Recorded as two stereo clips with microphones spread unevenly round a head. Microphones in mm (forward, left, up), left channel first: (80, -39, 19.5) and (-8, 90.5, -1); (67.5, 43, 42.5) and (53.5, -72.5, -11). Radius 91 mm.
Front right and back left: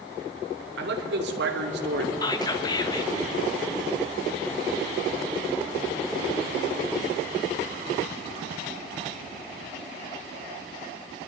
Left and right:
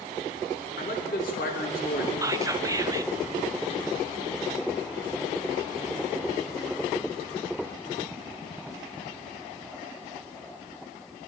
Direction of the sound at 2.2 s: 125° right.